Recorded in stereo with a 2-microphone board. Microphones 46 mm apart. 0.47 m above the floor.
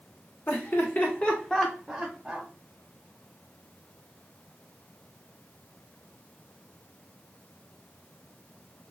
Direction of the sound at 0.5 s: 50° left (ahead or behind).